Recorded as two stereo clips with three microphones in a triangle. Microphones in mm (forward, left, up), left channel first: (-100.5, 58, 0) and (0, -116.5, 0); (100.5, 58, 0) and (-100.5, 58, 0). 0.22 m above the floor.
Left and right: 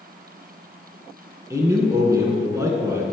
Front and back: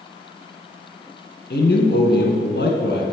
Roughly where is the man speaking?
Ahead.